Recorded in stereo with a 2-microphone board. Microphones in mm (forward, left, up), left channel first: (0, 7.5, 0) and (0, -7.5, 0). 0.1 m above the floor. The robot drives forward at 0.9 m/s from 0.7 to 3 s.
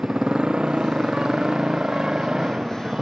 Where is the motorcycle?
75° right (ahead or behind); by 3.0 s 50° right (ahead or behind).